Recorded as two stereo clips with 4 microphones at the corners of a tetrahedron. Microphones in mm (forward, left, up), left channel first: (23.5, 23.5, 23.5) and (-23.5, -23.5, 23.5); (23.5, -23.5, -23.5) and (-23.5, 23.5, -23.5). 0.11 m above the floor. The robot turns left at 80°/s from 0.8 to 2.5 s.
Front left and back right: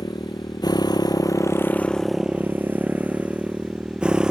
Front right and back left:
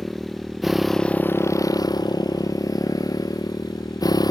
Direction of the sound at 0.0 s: 45° left.